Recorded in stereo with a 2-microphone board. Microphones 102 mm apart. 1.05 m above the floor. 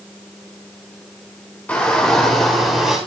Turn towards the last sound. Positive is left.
turn(degrees=-5)  # may be behind; listen again after turning